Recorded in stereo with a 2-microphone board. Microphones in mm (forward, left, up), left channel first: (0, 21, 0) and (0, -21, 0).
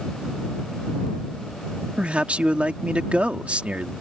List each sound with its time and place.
2.0 s a man speaking: 30° right (ahead or behind)